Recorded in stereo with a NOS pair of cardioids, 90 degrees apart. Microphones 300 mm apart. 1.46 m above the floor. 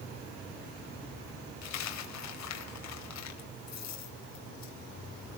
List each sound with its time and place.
1.6 s a dropped coin: 65° left, 3.5 m